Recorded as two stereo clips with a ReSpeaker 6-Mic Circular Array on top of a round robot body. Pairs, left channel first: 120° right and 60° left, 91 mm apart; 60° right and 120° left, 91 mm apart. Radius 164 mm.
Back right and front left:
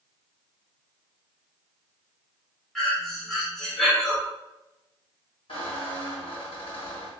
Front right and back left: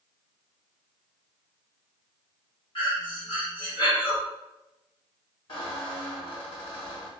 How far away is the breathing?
About 1.8 m.